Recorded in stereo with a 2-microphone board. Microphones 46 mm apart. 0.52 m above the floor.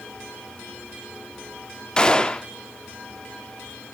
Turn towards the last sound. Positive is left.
turn(degrees=20)  # may be behind; listen again after turning